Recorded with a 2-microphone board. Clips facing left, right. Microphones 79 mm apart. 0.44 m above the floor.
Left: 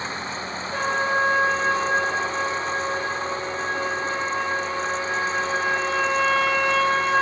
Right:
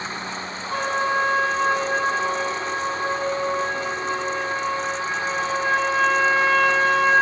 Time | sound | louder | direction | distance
0.7 | a trumpet | right 1 dB | 75° right (ahead or behind) | 4 m